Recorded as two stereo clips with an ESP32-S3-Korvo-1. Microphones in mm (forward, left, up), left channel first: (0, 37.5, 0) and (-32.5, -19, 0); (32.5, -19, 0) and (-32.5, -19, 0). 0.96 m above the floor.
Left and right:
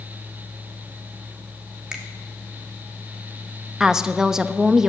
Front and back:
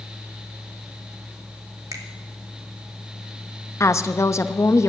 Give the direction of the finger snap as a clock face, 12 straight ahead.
7 o'clock.